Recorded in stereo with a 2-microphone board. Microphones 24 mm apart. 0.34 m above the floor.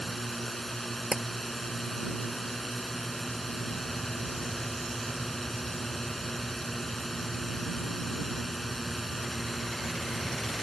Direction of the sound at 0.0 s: 10° left (ahead or behind).